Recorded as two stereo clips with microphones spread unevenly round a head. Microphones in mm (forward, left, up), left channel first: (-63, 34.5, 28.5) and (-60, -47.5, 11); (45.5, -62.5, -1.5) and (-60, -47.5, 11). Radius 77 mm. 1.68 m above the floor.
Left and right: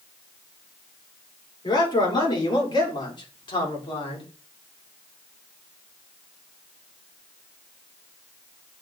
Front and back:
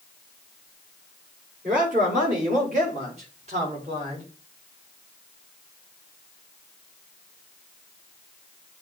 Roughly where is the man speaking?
Behind left.